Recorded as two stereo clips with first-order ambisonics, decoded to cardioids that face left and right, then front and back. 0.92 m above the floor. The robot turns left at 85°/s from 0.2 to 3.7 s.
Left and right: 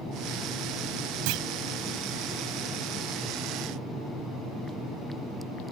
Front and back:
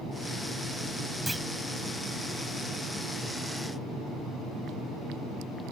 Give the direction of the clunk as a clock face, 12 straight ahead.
3 o'clock.